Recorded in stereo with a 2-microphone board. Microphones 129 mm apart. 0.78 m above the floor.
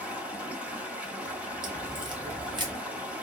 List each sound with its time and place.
0.0 s running water: 10° right (ahead or behind), 1.5 m
1.6 s a crack: 35° right (ahead or behind), 0.8 m